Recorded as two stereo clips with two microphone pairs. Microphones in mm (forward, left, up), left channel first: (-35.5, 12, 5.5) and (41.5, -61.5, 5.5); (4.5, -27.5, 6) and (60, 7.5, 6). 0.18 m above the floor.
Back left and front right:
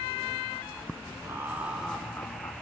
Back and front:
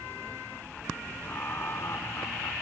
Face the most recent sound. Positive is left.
turn(degrees=180)